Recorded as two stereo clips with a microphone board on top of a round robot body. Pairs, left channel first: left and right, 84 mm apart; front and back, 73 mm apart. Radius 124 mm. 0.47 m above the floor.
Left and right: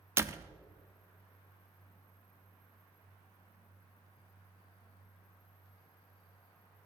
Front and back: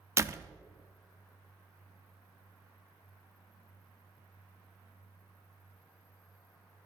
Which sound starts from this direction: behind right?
A door slam, at 0.2 s.